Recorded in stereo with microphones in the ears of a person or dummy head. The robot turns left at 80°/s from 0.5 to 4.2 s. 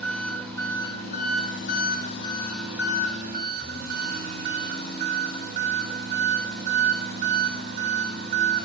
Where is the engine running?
170° left, 7 m; by 8.7 s 125° right, 7 m.